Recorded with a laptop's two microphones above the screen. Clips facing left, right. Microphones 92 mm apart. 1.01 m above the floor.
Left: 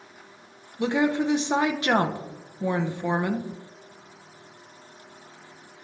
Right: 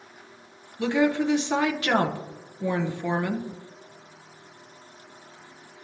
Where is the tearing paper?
I don't hear tearing paper.